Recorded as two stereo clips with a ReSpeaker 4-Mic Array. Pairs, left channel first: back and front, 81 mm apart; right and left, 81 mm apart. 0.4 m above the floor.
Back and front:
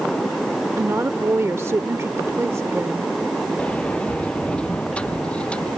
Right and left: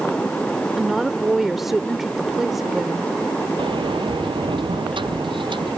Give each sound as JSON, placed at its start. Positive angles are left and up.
{"t": 0.8, "sound": "a woman speaking", "azimuth_deg": 5}
{"t": 3.6, "sound": "a sliding door", "azimuth_deg": 105}